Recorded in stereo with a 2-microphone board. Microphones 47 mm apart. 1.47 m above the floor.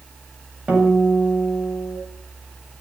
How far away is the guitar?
About 8 m.